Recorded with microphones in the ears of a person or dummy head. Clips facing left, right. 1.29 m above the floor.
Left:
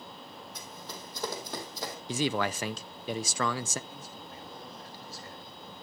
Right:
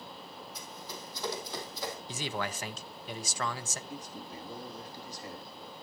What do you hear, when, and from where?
0.6 s running footsteps: 55° left (ahead or behind), 3.5 m; by 1.9 s 40° left (ahead or behind), 3.5 m
2.1 s a man speaking: 50° left (ahead or behind), 0.6 m
3.9 s a man speaking: 15° right (ahead or behind), 2 m